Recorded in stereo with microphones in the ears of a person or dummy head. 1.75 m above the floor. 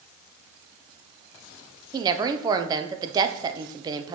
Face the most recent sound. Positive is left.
turn(degrees=-20)  # may be behind; listen again after turning